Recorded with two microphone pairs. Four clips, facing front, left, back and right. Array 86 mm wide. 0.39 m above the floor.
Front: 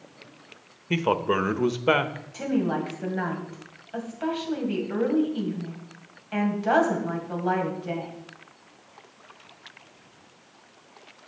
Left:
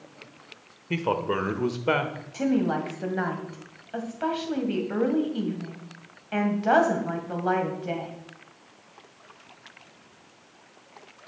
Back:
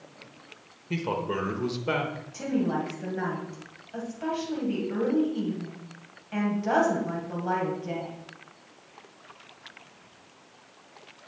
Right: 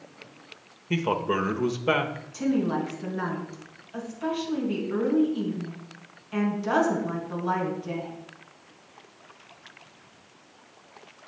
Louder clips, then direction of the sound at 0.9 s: Even, front 6 dB; 10° left.